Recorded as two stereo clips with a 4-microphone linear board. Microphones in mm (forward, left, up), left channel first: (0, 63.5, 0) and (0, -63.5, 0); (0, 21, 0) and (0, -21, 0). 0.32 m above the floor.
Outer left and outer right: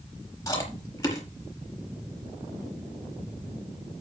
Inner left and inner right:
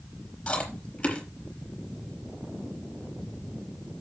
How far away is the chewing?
About 5 m.